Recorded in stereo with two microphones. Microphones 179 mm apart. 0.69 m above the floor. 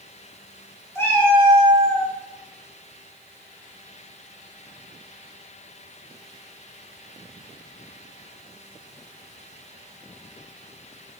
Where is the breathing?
I don't hear breathing.